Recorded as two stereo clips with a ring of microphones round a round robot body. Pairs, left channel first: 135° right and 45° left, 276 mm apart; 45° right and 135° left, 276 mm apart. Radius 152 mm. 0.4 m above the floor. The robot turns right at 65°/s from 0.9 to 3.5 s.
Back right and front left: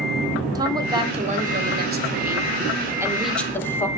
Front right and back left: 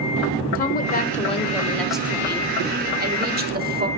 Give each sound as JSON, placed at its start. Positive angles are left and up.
{"t": 0.6, "sound": "a woman speaking", "azimuth_deg": -20, "distance_m": 1.2}